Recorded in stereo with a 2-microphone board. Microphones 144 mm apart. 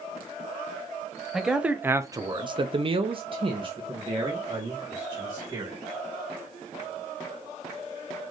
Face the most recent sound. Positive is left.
turn(degrees=-30)  # may be behind; listen again after turning